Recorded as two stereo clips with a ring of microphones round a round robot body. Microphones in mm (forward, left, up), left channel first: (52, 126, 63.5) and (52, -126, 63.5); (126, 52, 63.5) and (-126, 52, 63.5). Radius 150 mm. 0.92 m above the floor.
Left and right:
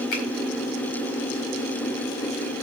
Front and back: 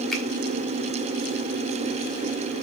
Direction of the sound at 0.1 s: 90° left.